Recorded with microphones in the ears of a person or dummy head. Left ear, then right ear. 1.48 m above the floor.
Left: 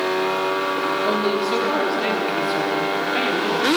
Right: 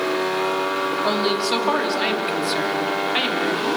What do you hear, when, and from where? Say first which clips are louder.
1.0 s a woman speaking: even; 30° right (ahead or behind), 3 m